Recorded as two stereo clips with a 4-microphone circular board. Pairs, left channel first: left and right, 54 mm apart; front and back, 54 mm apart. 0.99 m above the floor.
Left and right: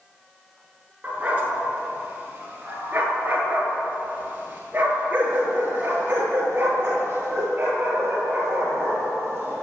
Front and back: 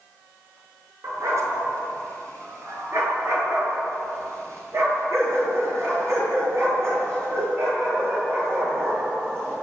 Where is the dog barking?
155° right, 6 m; by 9.5 s 140° right, 10.5 m.